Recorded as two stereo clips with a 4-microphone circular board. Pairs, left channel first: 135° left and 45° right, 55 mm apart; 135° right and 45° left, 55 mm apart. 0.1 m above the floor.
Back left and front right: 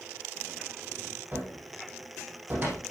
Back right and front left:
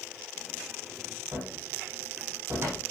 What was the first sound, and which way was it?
A cupboard door, 10° left.